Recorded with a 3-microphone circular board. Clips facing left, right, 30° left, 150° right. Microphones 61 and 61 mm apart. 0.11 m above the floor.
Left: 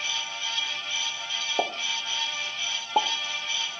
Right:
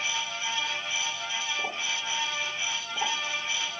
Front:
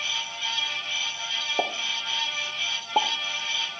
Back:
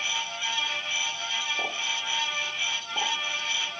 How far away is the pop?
About 3 m.